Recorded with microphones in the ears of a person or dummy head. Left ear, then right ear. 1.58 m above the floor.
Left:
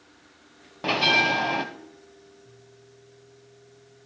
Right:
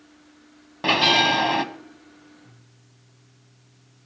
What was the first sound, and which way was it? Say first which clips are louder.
A bell: right 3 dB; 15° right (ahead or behind).